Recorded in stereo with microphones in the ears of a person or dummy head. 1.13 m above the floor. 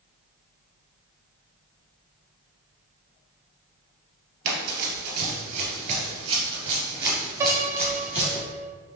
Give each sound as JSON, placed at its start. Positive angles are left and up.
{"t": 4.5, "sound": "running footsteps", "side_deg": -45, "distance_m": 1.5}
{"t": 7.4, "sound": "a piano", "side_deg": -15, "distance_m": 0.7}